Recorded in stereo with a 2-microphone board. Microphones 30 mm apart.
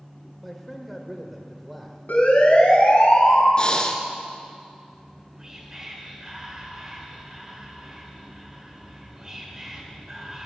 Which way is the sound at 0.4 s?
Centre (ahead or behind).